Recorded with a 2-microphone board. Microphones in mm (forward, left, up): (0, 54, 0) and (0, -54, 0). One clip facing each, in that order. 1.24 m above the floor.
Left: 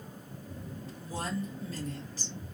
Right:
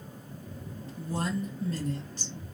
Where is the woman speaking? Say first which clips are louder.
Right 4 dB; 55° right (ahead or behind), 1.6 m.